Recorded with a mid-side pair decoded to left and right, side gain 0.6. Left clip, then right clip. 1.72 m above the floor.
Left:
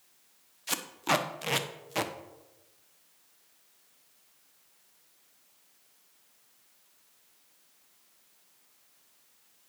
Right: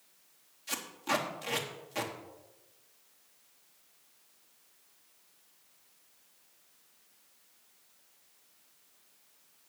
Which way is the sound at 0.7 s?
35° left.